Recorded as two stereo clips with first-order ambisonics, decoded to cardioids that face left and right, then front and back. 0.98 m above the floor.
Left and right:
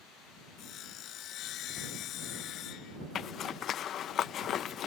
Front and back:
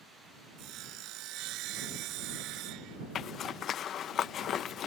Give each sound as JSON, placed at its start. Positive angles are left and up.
{"t": 0.6, "sound": "sawing", "azimuth_deg": 140}
{"t": 3.1, "sound": "a zipper", "azimuth_deg": 45}